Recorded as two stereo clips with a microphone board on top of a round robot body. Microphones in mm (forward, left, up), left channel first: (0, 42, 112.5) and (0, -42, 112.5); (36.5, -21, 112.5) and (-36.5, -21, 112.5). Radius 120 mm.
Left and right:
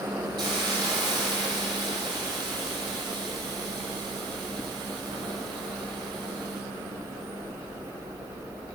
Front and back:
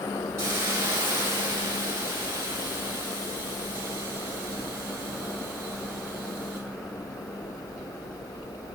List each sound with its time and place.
0.4 s a hiss: 125° right, 7 m